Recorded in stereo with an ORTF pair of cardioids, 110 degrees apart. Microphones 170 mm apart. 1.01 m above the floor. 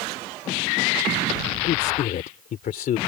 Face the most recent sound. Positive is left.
turn(degrees=55)